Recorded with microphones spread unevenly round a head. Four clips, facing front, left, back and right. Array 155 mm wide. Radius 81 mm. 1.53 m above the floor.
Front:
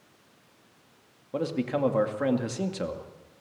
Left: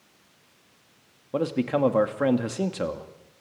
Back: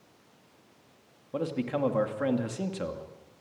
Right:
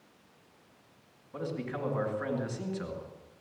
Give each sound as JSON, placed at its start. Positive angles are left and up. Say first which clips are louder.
{"t": 1.3, "sound": "a man speaking", "louder": "left 11 dB, front 2 dB", "azimuth_deg": 75, "distance_m": 2.5}